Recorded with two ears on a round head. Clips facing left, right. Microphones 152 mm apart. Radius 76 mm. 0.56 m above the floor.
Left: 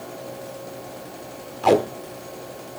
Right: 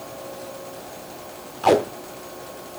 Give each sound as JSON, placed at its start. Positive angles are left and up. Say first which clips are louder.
{"t": 1.6, "sound": "tape being pulled", "louder": "even", "side_deg": 0, "distance_m": 1.0}